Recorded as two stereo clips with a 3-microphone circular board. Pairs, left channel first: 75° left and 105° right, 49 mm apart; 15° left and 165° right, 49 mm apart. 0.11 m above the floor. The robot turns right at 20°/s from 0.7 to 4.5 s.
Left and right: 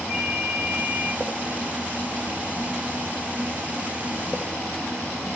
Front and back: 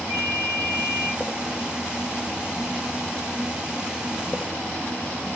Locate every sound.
0.1 s a ringtone: 175° left, 2.5 m; by 1.1 s straight behind, 2.5 m